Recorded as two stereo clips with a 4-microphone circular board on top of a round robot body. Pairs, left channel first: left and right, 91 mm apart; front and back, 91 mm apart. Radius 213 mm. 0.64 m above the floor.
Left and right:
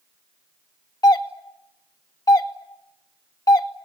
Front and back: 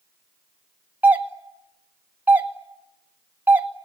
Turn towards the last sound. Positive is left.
turn(degrees=115)